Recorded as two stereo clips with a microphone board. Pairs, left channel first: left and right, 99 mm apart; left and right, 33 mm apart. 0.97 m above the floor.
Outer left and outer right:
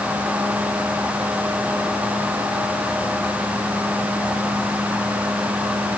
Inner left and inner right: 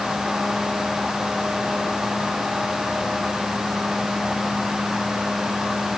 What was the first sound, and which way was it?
Only background noise.